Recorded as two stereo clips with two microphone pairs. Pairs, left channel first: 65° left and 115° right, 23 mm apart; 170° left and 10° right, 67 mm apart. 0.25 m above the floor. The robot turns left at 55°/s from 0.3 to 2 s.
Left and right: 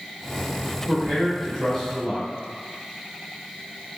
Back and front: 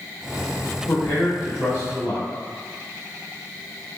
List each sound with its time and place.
0.9 s a man speaking: straight behind, 1.5 m; by 2.3 s 120° left, 1.5 m